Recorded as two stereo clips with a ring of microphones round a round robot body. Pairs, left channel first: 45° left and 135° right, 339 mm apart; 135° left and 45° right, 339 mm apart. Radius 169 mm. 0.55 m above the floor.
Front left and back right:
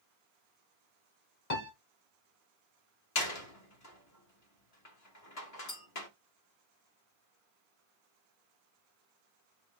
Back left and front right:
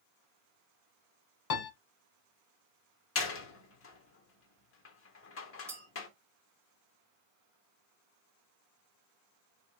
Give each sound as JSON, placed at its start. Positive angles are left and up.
{"t": 1.5, "sound": "a piano", "azimuth_deg": 105, "distance_m": 0.9}
{"t": 3.1, "sound": "a door slam", "azimuth_deg": 85, "distance_m": 0.9}
{"t": 5.7, "sound": "a clink", "azimuth_deg": 35, "distance_m": 2.0}